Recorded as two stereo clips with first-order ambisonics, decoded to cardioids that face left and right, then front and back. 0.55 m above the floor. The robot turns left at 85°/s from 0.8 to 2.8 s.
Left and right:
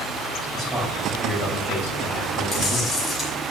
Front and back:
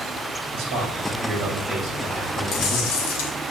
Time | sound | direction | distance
0.5 | a man speaking | 175° left | 2.5 m
2.5 | chewing | 35° left | 1.9 m